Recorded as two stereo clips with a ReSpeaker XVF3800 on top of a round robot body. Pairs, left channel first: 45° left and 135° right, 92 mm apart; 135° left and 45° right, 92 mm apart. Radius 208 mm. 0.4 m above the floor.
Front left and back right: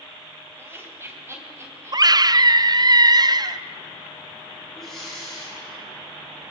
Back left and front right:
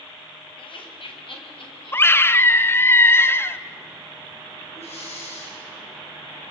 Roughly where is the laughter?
Behind.